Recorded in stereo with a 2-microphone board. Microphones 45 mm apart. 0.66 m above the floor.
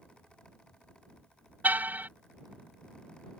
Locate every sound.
1.6 s a car horn: 45° right (ahead or behind)